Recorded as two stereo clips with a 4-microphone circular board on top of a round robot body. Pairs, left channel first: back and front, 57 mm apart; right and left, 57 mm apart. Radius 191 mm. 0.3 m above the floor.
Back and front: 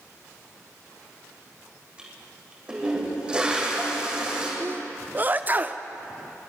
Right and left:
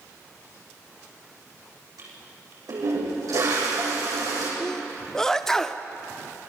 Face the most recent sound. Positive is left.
turn(degrees=-15)